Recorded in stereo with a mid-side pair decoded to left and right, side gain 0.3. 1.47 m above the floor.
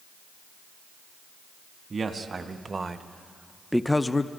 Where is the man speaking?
55° right, 2 m; by 4.3 s 45° left, 0.9 m.